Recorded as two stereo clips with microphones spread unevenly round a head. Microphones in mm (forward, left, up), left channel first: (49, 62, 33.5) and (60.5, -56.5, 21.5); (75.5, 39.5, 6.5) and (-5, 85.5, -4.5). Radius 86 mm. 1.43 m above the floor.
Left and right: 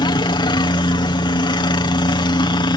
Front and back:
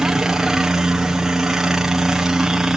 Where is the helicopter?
75° left.